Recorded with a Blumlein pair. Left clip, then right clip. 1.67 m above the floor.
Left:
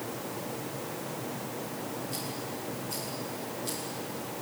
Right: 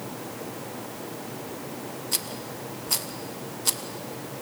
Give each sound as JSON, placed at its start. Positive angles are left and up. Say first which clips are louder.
{"t": 2.1, "sound": "a rattle", "louder": "right 4 dB", "azimuth_deg": -35, "distance_m": 1.4}